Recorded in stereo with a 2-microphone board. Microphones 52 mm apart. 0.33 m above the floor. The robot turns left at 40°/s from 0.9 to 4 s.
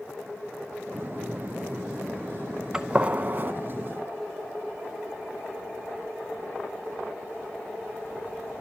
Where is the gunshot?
15° right (ahead or behind), 0.5 m; by 3.5 s 45° right (ahead or behind), 0.5 m.